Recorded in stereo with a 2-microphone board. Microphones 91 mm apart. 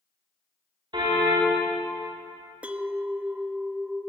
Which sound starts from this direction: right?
A car horn, at 0.9 s.